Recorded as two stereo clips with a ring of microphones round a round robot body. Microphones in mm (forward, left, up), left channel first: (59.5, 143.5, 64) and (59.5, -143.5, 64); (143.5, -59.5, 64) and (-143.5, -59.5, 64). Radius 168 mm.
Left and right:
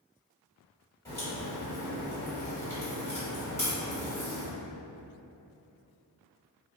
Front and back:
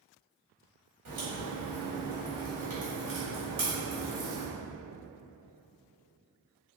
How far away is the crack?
About 1.6 m.